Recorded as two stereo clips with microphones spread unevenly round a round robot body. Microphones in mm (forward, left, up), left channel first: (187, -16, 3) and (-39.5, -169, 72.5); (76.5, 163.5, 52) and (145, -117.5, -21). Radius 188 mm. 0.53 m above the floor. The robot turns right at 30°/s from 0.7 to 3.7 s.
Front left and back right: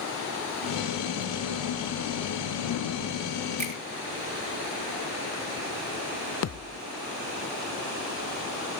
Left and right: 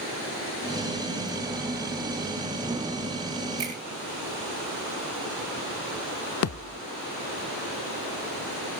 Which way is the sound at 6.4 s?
55° left.